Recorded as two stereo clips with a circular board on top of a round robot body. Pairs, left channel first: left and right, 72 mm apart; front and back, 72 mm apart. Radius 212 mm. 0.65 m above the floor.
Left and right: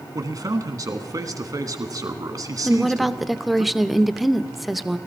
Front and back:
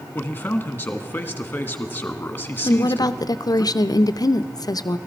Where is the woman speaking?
Straight ahead, 0.8 m.